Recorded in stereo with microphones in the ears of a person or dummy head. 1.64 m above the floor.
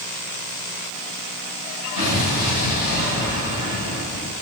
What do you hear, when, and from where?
2.0 s an explosion: 50° left (ahead or behind), 2.5 m